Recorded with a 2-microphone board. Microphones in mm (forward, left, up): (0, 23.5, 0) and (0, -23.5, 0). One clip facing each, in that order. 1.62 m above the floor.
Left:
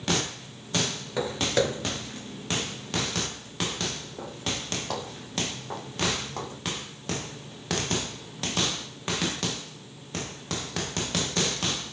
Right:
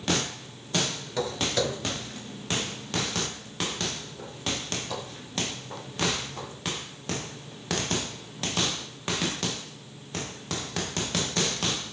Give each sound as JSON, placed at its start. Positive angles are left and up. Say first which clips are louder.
{"t": 1.2, "sound": "footsteps", "louder": "left 2 dB", "side_deg": 20, "distance_m": 1.6}